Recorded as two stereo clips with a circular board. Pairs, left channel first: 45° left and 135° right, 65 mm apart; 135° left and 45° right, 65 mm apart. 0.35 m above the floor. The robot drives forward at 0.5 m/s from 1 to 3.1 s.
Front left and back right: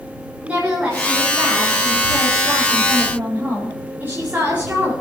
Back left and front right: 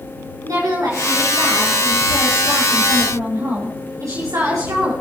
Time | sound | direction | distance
0.4 | a woman speaking | 65° right | 6 m